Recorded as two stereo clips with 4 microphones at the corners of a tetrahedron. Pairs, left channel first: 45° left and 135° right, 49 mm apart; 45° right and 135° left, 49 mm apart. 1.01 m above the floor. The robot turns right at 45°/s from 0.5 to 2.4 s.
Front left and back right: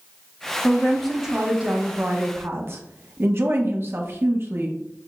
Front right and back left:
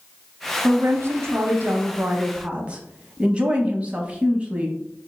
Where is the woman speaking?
115° left, 0.8 m; by 5.1 s 165° right, 0.8 m.